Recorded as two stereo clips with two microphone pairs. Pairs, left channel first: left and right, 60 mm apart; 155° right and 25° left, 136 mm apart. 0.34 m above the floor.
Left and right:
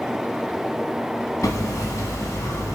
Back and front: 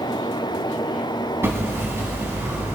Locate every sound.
1.4 s hammering: 95° left, 1.9 m